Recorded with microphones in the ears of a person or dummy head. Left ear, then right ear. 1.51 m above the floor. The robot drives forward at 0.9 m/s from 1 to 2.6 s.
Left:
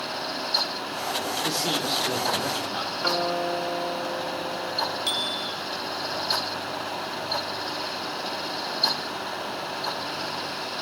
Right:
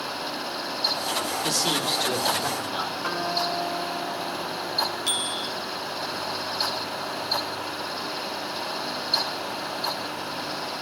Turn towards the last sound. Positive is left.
turn(degrees=10)  # may be behind; listen again after turning